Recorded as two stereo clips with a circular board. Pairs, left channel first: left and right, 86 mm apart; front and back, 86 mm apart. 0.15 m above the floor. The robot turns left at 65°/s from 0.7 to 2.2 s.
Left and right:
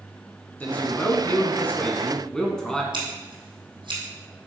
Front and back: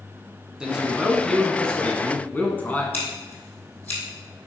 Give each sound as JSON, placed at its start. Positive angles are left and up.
{"t": 0.6, "sound": "a man speaking", "azimuth_deg": 115, "distance_m": 1.0}
{"t": 2.9, "sound": "scissors", "azimuth_deg": -70, "distance_m": 2.5}